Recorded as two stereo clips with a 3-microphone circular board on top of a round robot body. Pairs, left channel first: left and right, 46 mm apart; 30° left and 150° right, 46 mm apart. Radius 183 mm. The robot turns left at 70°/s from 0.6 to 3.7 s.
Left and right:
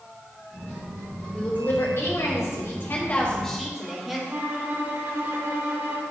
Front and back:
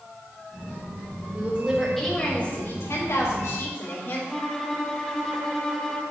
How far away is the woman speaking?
About 3.5 m.